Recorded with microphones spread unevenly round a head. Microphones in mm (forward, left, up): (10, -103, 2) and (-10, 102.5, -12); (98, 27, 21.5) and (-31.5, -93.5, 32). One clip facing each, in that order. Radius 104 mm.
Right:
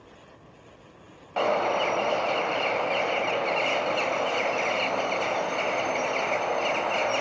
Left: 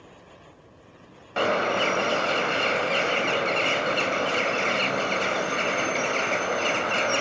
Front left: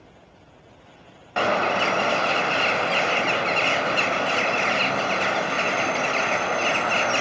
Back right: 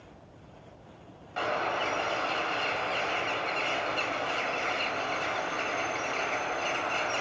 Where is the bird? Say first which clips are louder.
Even, front left 8 dB; 25° left, 2.0 m.